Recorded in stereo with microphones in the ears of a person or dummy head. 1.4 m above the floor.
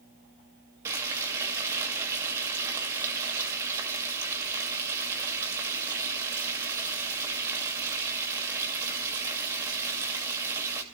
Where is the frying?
15° right (ahead or behind), 2.5 m.